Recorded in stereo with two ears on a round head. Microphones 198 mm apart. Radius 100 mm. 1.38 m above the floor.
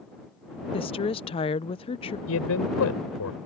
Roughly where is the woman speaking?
Left.